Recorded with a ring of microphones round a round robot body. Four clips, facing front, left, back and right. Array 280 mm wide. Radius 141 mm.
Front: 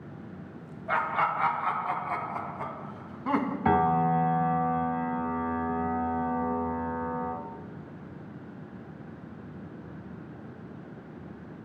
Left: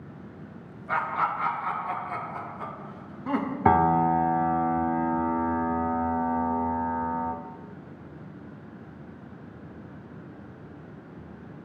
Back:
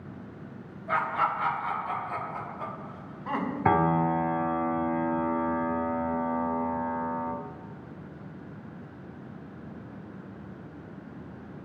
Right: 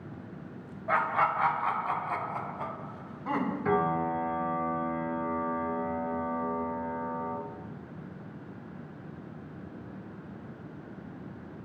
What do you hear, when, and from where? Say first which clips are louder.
0.9 s laughter: even, even; 75° right, 2 m; by 3.5 s 5° left, 1.5 m
3.6 s a piano: left 9 dB, even; 105° left, 0.8 m